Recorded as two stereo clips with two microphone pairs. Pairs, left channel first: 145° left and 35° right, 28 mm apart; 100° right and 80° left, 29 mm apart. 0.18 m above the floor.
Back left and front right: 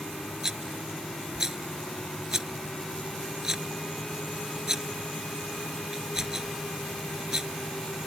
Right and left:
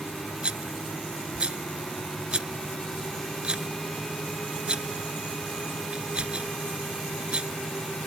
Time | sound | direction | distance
0.4 | a rattle | 30° left | ?